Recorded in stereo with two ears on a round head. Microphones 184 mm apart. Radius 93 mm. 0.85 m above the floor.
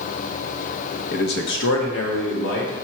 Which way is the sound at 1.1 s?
45° left (ahead or behind).